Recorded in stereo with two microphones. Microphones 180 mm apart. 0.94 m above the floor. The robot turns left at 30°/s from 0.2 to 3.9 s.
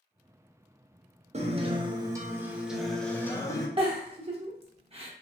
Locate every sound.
1.3 s a guitar: 135° right, 0.5 m; by 3.7 s 155° left, 0.5 m
3.8 s a giggle: 30° right (ahead or behind), 0.6 m; by 5.1 s 35° right (ahead or behind), 0.6 m